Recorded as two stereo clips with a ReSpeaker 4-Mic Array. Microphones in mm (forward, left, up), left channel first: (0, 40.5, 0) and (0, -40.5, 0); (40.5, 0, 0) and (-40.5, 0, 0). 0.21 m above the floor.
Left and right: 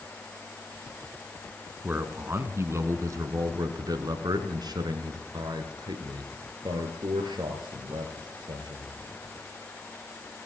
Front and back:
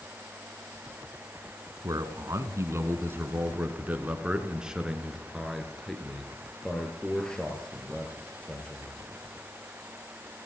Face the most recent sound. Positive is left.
turn(degrees=-75)